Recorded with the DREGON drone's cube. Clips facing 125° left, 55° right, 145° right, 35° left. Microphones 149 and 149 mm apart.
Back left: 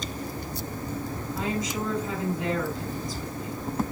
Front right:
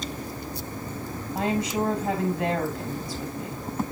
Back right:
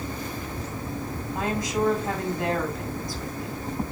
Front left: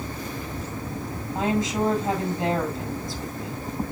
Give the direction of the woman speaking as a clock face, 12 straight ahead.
1 o'clock.